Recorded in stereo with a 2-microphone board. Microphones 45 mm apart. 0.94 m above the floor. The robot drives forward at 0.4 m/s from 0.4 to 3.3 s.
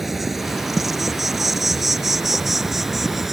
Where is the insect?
5° right (ahead or behind).